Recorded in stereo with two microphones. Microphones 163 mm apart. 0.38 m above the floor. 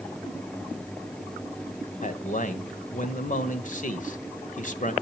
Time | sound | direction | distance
2.0 | a man speaking | 50° left (ahead or behind) | 1.2 m